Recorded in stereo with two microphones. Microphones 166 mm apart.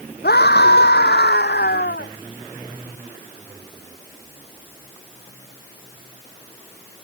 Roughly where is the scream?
Left.